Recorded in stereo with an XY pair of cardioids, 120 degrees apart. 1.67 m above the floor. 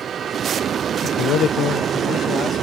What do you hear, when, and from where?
1.0 s a man speaking: 70° left; by 2.6 s 55° left